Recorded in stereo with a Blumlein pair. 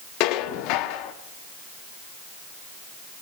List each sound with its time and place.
0.2 s dishes clattering: 40° left, 1.4 m